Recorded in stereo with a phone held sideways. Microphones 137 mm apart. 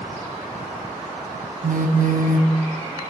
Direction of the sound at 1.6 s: 75° right (ahead or behind).